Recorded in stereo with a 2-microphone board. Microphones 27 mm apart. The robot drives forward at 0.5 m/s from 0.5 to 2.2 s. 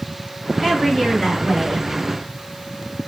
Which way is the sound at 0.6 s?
10° left (ahead or behind).